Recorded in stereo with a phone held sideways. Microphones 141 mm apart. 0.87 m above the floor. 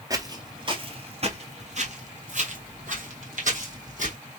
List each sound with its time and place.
0.1 s footsteps: 25° right (ahead or behind), 1.1 m; by 4.2 s 65° right (ahead or behind), 2.5 m